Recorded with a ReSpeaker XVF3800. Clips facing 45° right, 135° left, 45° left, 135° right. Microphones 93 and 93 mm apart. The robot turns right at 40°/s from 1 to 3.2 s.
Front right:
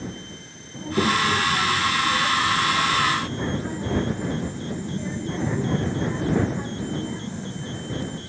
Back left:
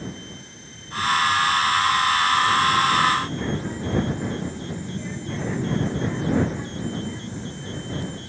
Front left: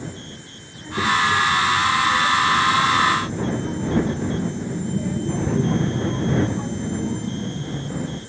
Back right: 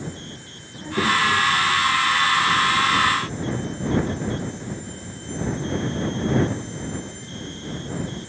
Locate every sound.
0.7 s a child speaking: 60° right; by 8.2 s 25° left